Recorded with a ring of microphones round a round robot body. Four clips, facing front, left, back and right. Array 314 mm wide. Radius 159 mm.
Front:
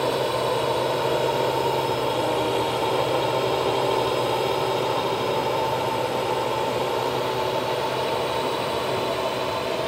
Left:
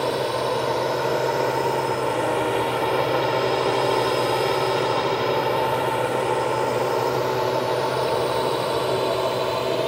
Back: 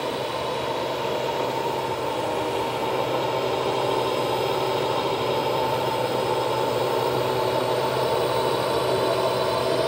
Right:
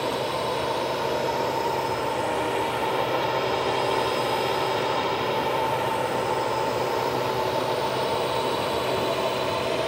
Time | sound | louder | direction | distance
0.0 | a drone | left 3 dB, front 4 dB | 50° left | ?